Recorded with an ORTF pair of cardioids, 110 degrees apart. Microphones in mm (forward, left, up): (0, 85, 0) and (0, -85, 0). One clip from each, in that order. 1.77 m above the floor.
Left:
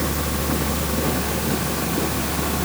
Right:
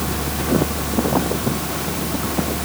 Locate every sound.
Only background noise.